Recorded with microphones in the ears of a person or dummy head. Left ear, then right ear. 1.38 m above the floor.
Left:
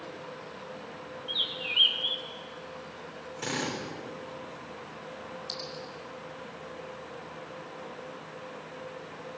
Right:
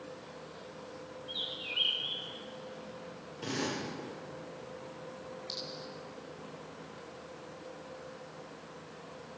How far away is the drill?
About 4.5 m.